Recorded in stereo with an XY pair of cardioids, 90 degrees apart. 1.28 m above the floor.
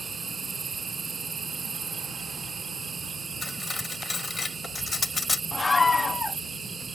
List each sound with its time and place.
0.0 s an insect: 40° right
3.4 s cutlery clinking: 35° left
5.5 s a scream: 30° left